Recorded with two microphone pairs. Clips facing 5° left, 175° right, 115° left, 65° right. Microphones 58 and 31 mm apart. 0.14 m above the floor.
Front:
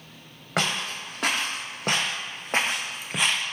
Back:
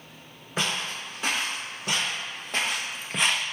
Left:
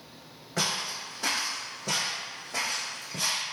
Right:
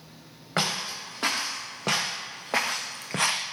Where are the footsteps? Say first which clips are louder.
Front 2 dB, right 2 dB; 20° right, 1.7 m; by 3.4 s 105° right, 0.5 m.